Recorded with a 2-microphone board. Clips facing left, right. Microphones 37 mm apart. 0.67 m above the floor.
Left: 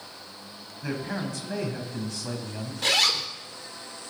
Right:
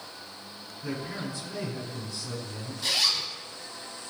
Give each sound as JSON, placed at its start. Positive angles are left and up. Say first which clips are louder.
{"t": 0.8, "sound": "a man speaking", "louder": "left 3 dB", "side_deg": 80, "distance_m": 4.0}
{"t": 2.8, "sound": "a zipper", "louder": "left 4 dB", "side_deg": 70, "distance_m": 1.5}